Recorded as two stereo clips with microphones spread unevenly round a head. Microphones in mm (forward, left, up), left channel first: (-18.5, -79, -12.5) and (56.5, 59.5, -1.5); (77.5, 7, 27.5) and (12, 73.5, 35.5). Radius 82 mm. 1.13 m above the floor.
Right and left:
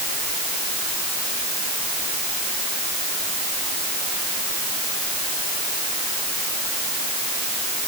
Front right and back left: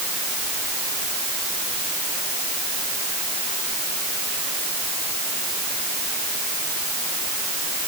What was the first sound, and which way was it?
Only background noise.